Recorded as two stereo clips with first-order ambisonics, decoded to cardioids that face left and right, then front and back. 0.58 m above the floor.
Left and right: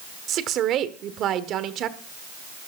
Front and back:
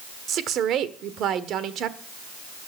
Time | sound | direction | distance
0.3 | a woman speaking | 135° right | 1.4 m